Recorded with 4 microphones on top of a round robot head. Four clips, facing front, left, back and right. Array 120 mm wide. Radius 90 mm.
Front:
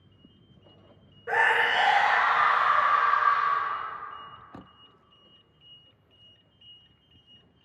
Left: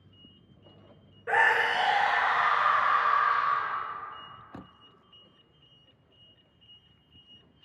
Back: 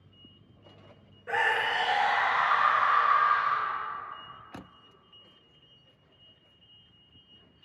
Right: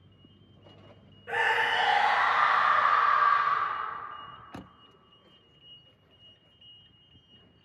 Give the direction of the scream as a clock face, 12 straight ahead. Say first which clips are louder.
Left 3 dB, front 4 dB; 10 o'clock.